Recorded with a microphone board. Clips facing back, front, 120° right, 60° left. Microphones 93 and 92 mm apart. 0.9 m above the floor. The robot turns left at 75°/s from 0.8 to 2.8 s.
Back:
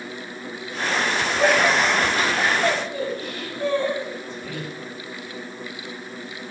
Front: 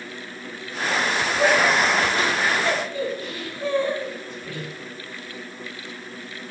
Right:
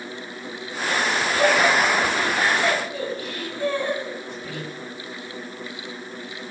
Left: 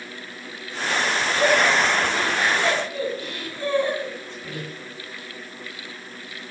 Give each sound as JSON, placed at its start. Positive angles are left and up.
{"t": 1.4, "sound": "laughter", "azimuth_deg": -90, "distance_m": 7.5}